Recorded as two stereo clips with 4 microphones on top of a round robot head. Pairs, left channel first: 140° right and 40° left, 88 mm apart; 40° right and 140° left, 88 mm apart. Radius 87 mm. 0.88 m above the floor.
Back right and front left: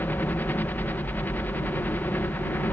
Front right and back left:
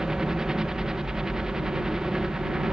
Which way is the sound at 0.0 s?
150° right.